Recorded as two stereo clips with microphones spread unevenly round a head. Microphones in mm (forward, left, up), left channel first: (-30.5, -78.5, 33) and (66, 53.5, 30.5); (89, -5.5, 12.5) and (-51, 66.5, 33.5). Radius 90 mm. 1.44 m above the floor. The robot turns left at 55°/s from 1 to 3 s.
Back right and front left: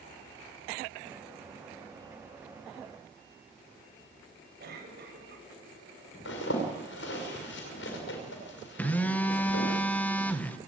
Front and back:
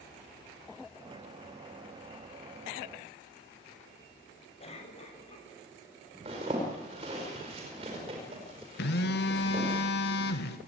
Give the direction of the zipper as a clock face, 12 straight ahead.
5 o'clock.